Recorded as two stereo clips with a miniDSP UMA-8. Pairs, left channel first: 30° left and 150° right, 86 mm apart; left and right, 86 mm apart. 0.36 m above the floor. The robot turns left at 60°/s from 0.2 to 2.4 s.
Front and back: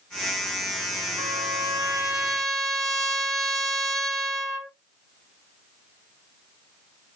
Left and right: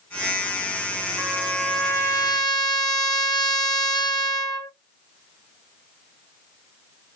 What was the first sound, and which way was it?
A trumpet, 175° right.